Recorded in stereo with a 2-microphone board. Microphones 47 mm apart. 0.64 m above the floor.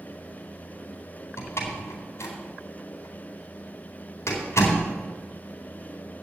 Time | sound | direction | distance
1.4 | a door slam | 70° left (ahead or behind) | 4 m